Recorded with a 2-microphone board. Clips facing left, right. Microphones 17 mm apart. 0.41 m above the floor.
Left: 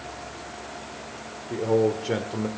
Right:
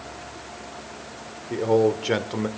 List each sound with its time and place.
1.5 s a man speaking: 25° right (ahead or behind), 1.0 m